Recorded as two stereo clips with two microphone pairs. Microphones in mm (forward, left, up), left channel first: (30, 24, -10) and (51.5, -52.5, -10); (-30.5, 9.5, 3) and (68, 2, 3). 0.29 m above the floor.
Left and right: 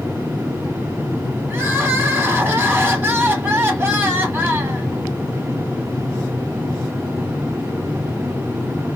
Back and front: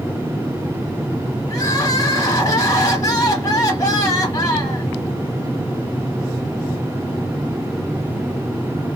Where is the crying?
135° right, 1.0 m.